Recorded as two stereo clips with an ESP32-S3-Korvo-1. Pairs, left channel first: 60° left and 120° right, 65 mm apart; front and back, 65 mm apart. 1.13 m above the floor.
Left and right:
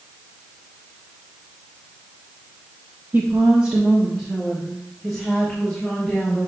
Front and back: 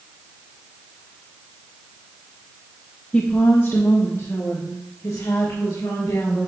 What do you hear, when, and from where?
3.1 s a woman speaking: 70° right, 0.7 m; by 6.5 s 25° right, 3.5 m